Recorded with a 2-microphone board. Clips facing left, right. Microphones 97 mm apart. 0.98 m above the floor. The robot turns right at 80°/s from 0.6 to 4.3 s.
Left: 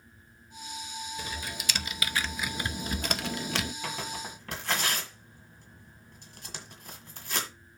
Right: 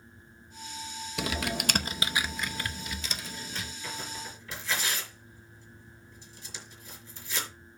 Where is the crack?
No crack in this recording.